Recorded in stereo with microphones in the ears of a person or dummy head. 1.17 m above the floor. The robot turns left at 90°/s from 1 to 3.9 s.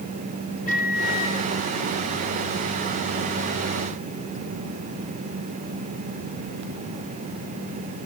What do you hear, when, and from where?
0.7 s a microwave: 45° left, 2 m; by 1.4 s 5° left, 2 m